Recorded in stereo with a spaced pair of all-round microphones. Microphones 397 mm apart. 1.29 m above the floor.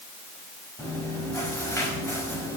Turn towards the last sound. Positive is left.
turn(degrees=5)  # may be behind; listen again after turning